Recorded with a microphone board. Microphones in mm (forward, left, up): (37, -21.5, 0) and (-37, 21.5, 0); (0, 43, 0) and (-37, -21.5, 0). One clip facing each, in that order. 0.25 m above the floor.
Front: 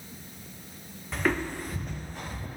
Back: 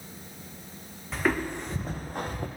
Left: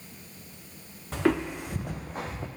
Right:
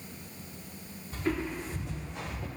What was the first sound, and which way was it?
Footsteps, 60° left.